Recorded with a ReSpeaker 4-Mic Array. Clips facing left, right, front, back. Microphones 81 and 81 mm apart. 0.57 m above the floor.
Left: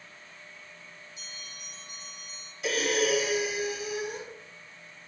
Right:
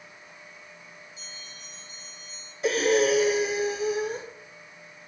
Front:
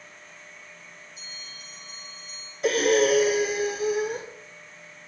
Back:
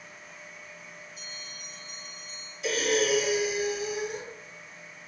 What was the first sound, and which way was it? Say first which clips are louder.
A bell: right 1 dB, back 1 dB; 145° right.